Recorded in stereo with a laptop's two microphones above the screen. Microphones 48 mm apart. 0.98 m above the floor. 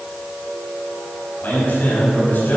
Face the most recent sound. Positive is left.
turn(degrees=45)  # may be behind; listen again after turning